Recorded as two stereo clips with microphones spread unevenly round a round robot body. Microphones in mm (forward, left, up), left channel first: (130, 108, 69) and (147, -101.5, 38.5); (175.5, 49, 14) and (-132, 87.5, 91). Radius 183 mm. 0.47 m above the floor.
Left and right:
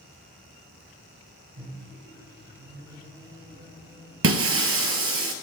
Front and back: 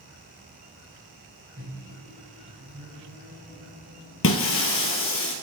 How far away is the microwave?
About 2.5 m.